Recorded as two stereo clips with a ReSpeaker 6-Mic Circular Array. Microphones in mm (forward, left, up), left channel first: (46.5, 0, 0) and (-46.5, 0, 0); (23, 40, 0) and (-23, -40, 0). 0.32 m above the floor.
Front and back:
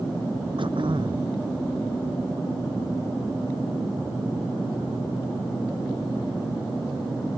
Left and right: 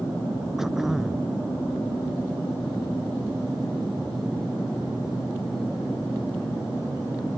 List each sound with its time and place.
0.6 s throat clearing: 155° left